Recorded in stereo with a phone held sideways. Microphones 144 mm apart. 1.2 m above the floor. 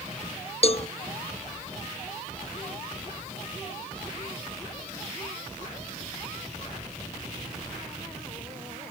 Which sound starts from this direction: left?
A cowbell, at 0.6 s.